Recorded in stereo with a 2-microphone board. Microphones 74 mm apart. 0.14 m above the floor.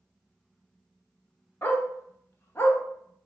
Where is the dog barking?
35° left (ahead or behind), 0.6 m.